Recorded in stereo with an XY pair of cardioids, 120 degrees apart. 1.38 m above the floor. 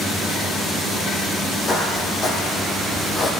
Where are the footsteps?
35° left, 4.5 m.